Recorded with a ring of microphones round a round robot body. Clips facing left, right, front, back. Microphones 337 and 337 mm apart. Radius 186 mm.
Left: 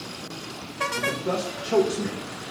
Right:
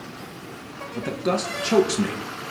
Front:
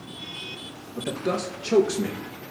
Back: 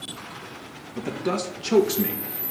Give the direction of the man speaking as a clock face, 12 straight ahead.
3 o'clock.